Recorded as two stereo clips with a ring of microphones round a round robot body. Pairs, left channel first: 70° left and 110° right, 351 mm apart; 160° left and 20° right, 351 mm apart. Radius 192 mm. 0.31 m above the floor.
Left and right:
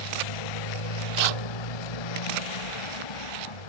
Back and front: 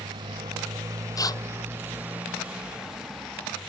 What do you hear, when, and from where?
0.0 s a motorcycle: 55° left; by 3.7 s 70° left
1.2 s tearing paper: 120° right